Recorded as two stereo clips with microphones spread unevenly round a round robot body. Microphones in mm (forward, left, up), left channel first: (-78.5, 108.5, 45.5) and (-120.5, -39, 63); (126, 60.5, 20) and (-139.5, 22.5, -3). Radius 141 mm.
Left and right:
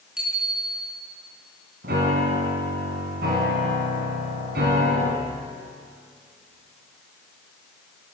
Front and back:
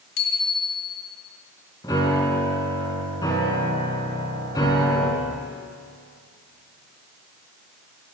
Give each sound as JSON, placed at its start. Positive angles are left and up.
{"t": 0.2, "sound": "a bicycle bell", "azimuth_deg": -20, "distance_m": 3.5}
{"t": 1.8, "sound": "a piano", "azimuth_deg": -70, "distance_m": 4.5}